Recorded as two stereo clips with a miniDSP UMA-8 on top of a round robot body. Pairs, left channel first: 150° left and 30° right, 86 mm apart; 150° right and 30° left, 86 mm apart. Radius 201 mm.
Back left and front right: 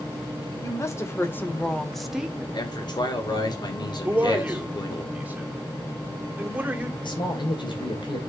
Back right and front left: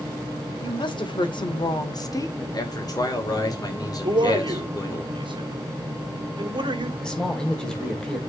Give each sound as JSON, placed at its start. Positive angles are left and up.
{"t": 0.6, "sound": "a woman speaking", "azimuth_deg": -160, "distance_m": 2.5}
{"t": 2.5, "sound": "a man speaking", "azimuth_deg": 175, "distance_m": 3.0}
{"t": 4.0, "sound": "a man speaking", "azimuth_deg": 40, "distance_m": 2.5}
{"t": 7.0, "sound": "a man speaking", "azimuth_deg": 130, "distance_m": 3.0}